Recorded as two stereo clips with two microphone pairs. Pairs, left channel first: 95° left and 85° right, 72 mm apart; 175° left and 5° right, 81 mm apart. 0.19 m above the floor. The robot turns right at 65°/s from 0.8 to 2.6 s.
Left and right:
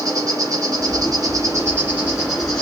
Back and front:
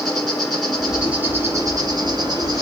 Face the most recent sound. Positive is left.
turn(degrees=20)